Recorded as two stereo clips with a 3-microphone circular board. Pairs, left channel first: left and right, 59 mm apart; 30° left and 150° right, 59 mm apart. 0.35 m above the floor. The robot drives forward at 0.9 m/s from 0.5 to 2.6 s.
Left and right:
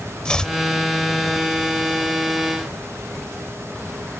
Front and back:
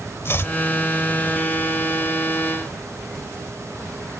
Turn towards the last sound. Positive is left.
turn(degrees=165)